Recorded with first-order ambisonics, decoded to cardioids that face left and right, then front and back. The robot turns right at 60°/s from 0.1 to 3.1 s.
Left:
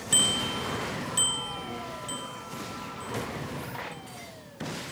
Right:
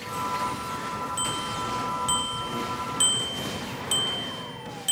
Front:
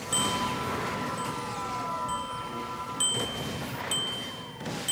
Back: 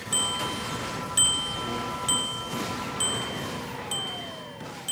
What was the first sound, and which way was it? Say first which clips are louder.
A bicycle bell: left 3 dB, back 1 dB; 95° left.